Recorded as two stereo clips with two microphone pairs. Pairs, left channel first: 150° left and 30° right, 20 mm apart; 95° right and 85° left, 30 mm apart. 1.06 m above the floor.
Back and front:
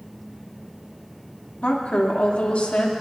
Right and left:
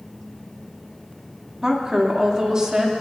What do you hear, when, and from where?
1.6 s a woman speaking: 150° left, 2 m